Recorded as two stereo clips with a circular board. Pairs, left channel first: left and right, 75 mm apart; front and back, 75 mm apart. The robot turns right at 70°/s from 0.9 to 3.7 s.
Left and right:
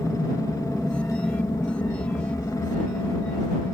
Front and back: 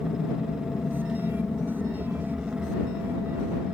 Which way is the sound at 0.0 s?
15° left.